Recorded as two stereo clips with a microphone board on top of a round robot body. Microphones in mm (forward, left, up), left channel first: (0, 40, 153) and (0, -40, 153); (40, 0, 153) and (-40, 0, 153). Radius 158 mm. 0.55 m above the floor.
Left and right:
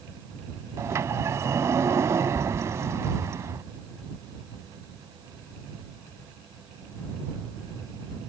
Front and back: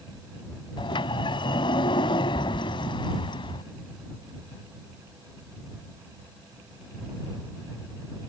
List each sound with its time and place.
0.8 s a sliding door: 30° right